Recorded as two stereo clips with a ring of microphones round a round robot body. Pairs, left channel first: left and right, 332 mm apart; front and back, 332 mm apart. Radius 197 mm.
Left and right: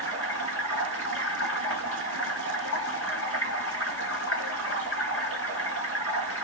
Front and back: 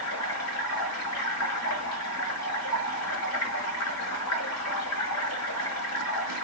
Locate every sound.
0.0 s running water: 40° left, 5 m